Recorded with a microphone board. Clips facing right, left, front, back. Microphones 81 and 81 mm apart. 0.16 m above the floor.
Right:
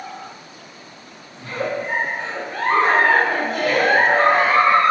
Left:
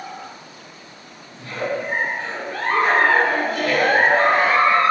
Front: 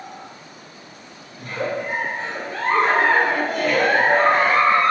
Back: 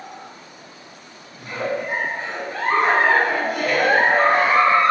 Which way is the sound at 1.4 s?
115° right.